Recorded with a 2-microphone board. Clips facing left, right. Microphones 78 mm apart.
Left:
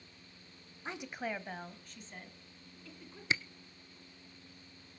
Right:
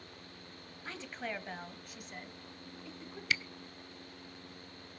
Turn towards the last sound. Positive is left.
turn(degrees=30)  # may be behind; listen again after turning